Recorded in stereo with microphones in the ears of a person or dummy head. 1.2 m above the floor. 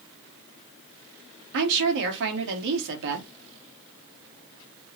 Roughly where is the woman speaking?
Right.